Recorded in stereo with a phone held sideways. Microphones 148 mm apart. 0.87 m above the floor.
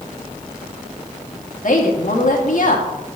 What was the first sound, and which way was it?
A woman speaking, 65° left (ahead or behind).